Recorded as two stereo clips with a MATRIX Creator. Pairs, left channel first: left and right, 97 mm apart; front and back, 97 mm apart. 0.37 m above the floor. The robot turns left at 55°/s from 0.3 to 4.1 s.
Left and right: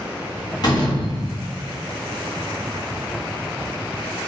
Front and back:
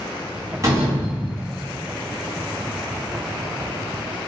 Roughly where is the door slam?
Behind left.